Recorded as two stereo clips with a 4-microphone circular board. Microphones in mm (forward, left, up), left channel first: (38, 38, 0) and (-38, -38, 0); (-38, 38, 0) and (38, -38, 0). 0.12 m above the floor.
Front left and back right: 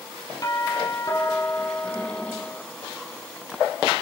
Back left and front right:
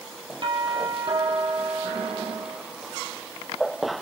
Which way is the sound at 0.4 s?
5° right.